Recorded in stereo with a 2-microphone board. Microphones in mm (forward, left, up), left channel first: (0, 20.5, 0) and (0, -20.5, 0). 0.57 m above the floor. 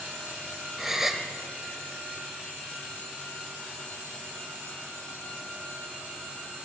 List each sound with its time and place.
0.8 s a gasp: 10° right (ahead or behind), 0.6 m